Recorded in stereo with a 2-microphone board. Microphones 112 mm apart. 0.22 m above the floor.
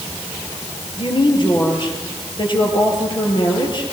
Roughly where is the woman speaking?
Left.